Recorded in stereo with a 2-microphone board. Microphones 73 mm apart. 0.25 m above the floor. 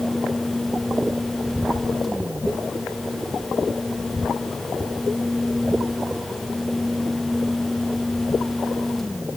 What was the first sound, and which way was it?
Only background noise.